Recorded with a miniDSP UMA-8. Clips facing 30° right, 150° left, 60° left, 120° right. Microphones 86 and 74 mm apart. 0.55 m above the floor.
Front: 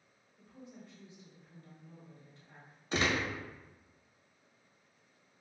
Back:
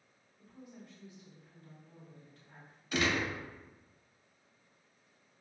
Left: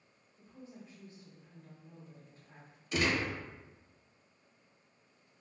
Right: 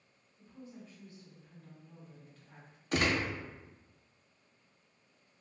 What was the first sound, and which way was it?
A woman speaking, 15° left.